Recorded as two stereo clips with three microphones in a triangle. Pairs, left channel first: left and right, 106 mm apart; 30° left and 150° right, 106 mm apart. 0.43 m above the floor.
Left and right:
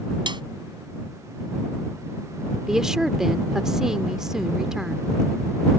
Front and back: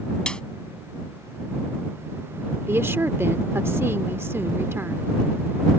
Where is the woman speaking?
170° right.